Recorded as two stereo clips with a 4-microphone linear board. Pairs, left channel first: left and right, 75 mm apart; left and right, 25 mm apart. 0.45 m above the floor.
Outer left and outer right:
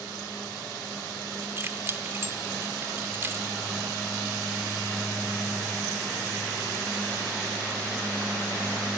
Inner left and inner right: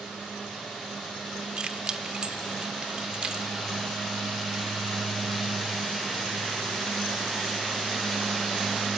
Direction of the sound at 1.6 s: 35° right (ahead or behind).